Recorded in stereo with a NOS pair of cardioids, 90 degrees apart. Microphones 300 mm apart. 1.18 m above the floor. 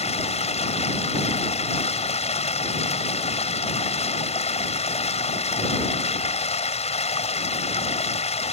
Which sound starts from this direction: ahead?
Running water, at 0.0 s.